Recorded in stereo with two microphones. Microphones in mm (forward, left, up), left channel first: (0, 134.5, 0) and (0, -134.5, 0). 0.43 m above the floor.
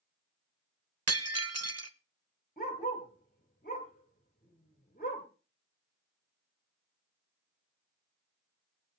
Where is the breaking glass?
75° right (ahead or behind), 0.7 m.